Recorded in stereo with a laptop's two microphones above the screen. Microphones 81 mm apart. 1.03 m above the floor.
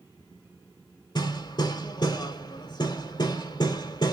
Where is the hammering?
60° left (ahead or behind), 1.7 m.